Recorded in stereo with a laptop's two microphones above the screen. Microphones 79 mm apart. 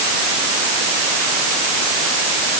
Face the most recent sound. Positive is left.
No sound to turn to.